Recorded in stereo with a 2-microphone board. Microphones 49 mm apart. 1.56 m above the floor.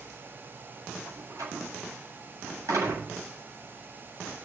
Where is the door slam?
85° right, 8.5 m.